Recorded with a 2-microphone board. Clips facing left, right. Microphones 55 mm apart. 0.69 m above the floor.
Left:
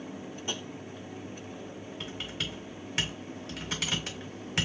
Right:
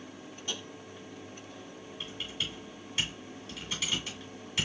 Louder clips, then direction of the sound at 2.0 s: Left 1 dB; 60° left (ahead or behind).